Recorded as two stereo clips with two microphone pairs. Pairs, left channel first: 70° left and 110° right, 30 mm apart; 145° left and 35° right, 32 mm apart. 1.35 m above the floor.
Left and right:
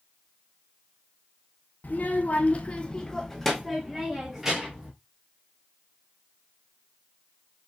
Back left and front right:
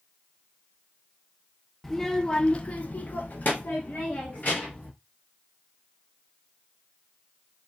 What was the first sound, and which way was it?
A child speaking, 70° left.